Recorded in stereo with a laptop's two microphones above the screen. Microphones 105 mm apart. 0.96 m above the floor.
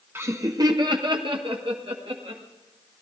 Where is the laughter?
25° right (ahead or behind), 0.9 m; by 2.4 s 65° right (ahead or behind), 1.9 m.